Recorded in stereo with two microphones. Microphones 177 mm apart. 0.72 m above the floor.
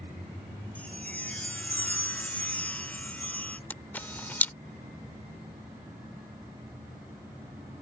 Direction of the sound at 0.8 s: 10° left (ahead or behind).